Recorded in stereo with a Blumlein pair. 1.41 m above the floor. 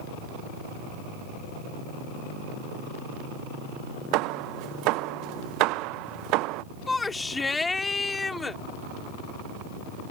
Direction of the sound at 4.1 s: 40° right.